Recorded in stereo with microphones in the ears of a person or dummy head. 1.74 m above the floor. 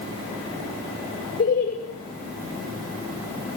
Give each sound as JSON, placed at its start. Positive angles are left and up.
{"t": 1.4, "sound": "laughter", "side_deg": 40, "distance_m": 2.5}